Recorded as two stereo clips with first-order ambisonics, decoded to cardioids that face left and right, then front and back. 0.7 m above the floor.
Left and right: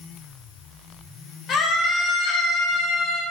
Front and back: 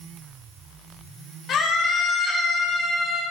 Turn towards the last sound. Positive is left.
turn(degrees=95)